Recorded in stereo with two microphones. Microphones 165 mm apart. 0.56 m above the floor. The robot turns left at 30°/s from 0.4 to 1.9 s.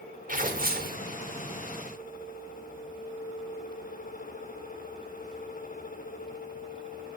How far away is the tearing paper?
About 0.9 m.